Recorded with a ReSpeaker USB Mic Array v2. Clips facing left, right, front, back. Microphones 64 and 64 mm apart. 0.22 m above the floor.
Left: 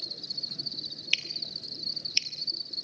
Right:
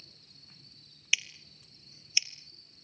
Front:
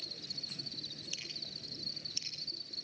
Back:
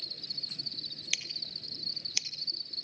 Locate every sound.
0.0 s an insect: 85° left, 0.8 m
1.1 s scissors: 170° right, 1.4 m